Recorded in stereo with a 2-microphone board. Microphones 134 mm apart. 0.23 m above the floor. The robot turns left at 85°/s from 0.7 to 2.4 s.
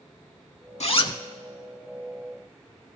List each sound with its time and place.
0.8 s a zipper: 60° left, 0.5 m; by 1.2 s 25° left, 0.5 m